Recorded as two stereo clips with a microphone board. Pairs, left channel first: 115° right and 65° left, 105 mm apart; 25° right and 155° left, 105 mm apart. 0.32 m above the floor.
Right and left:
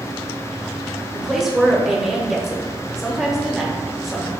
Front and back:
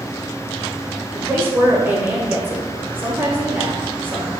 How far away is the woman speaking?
About 0.8 m.